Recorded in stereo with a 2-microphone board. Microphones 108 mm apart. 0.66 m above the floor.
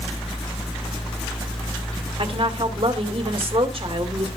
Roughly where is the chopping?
No chopping in this recording.